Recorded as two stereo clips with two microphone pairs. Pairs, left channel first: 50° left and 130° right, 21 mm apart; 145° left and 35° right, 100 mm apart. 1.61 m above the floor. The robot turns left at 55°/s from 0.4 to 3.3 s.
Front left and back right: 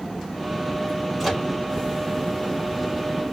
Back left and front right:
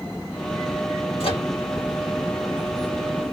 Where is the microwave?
150° left, 1.9 m; by 1.5 s 135° left, 1.9 m.